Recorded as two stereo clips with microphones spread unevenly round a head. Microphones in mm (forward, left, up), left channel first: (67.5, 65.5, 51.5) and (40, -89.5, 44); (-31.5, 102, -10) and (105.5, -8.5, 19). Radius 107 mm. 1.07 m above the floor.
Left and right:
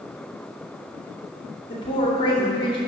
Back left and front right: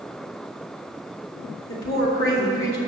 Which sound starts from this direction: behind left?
A woman speaking, at 1.7 s.